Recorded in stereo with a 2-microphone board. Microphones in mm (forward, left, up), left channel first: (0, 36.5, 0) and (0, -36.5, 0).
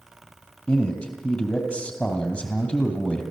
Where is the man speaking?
15° left (ahead or behind), 3 m.